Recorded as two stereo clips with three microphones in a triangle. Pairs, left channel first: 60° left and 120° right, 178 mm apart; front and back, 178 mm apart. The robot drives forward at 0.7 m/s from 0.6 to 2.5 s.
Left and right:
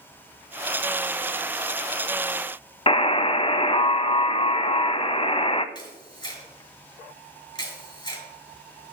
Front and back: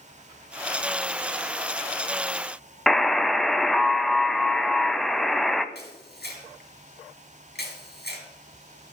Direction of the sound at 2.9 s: 90° left.